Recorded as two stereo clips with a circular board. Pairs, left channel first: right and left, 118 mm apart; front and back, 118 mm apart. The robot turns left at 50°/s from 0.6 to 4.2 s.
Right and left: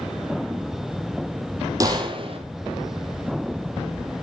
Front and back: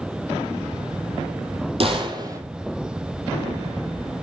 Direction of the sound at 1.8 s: 150° left.